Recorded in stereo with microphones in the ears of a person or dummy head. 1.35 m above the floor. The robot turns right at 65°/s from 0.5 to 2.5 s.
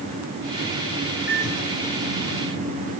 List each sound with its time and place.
1.3 s a microwave: straight behind, 9.5 m; by 3.0 s 100° right, 9.5 m